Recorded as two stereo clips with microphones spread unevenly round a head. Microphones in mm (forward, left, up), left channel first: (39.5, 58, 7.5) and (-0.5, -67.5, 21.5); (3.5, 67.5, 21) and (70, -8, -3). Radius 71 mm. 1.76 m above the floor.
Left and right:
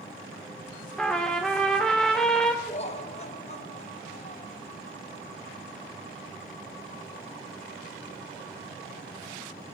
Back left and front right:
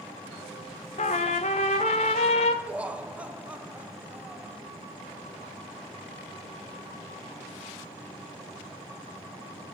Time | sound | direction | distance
1.0 | a trumpet | 160° left | 0.6 m
2.7 | laughter | 30° left | 0.9 m